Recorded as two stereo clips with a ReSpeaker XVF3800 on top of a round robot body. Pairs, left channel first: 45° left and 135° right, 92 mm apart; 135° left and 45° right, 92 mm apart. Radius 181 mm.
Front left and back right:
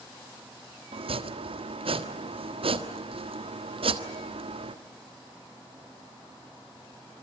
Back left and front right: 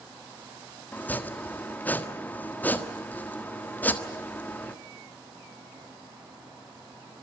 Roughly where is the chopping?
Behind right.